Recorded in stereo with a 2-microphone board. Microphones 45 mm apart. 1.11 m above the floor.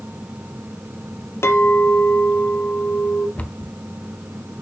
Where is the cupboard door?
35° left (ahead or behind), 1.1 m.